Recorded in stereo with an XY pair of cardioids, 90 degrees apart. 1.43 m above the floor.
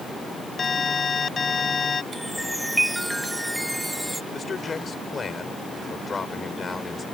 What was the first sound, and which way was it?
An alarm, 40° left.